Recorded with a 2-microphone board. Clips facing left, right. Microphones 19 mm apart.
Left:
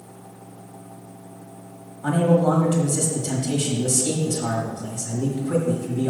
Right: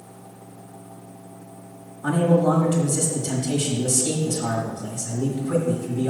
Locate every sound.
2.0 s a man speaking: 15° left (ahead or behind), 1.3 m